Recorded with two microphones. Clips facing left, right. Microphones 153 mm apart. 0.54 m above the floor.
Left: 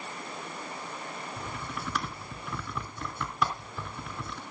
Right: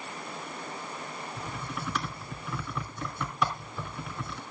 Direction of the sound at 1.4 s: Centre (ahead or behind).